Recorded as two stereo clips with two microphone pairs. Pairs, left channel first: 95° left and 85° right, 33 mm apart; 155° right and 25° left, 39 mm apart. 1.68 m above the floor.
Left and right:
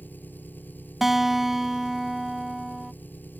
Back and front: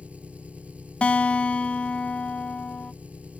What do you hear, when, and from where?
0.0 s an engine running: 80° left
1.0 s a guitar: 160° right